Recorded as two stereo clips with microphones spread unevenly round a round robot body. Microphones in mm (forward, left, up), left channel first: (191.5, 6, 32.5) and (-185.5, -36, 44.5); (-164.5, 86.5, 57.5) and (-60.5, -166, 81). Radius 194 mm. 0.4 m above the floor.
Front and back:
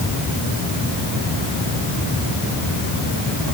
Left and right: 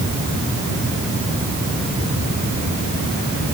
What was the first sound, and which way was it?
Only background noise.